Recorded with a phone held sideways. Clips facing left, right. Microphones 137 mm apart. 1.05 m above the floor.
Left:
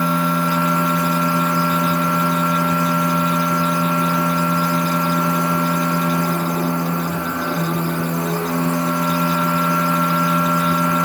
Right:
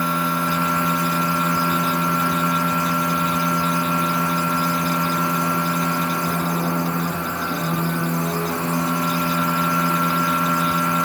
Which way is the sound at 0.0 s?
70° left (ahead or behind).